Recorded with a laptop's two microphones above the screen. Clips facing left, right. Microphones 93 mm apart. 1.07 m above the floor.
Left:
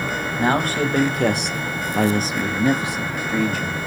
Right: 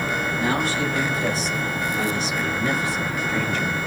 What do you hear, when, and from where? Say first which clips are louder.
0.4 s a man speaking: left 6 dB; 45° left (ahead or behind), 1.0 m; by 3.8 s 5° left (ahead or behind), 1.2 m